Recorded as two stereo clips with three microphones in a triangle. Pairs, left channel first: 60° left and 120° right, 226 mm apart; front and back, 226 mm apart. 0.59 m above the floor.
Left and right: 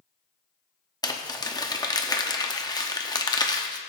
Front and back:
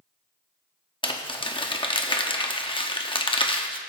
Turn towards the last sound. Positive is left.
turn(degrees=15)